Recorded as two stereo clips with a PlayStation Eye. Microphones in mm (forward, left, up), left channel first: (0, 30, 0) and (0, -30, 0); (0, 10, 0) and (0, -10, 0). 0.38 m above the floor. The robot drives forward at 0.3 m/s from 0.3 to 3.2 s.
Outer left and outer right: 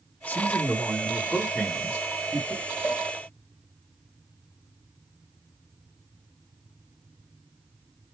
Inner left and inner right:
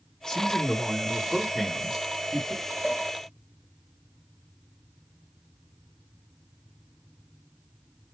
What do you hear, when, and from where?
0.3 s a man speaking: 30° left (ahead or behind), 0.9 m; by 2.7 s 25° left (ahead or behind), 1.1 m
2.8 s a cowbell: 40° left (ahead or behind), 1.4 m